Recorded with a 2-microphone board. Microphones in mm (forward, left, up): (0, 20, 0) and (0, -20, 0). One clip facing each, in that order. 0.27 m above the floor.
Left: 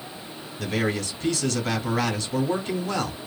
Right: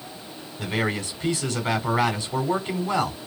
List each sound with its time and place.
0.6 s a man speaking: 20° right (ahead or behind), 1.4 m